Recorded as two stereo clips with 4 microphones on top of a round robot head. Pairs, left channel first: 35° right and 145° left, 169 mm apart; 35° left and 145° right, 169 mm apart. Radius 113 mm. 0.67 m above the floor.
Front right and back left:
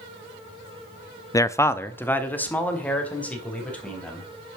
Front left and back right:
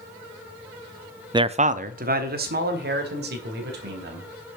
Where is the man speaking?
95° right, 0.6 m; by 4.3 s 120° right, 4.5 m.